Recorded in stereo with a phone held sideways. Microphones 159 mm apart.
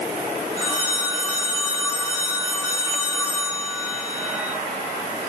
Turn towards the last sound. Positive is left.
turn(degrees=-20)  # may be behind; listen again after turning